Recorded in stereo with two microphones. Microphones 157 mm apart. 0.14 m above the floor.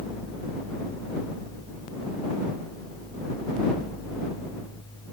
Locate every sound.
Only background noise.